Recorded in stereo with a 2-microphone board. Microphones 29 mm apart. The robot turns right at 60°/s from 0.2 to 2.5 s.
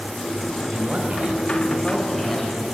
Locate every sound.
0.7 s a man speaking: 90° right, 2.5 m; by 2.6 s 15° left, 2.5 m